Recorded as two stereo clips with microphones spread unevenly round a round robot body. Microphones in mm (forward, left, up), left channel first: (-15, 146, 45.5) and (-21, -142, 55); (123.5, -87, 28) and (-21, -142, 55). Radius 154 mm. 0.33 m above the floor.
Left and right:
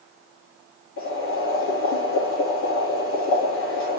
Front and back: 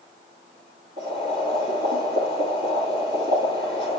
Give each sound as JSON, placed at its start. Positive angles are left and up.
{"t": 1.0, "sound": "boiling", "azimuth_deg": 135, "distance_m": 4.0}